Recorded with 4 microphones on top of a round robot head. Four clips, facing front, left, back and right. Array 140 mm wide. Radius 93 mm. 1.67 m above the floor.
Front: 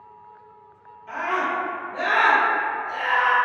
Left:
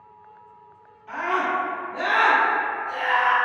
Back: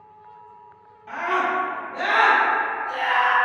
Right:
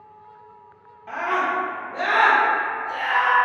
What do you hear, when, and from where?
1.1 s a scream: 100° right, 1.1 m; by 3.3 s 170° right, 1.1 m